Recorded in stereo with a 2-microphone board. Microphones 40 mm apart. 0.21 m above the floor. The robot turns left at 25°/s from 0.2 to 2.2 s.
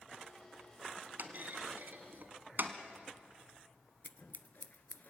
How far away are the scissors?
About 0.6 m.